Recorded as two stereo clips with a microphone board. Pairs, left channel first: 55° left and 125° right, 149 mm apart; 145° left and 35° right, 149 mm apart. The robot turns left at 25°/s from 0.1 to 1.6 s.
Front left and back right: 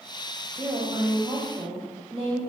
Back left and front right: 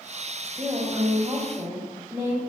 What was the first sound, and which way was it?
A woman speaking, 90° right.